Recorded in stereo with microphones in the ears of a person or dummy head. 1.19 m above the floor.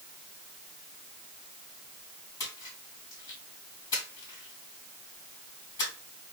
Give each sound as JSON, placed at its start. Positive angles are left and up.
{"t": 2.4, "sound": "a splash", "side_deg": 20, "distance_m": 3.5}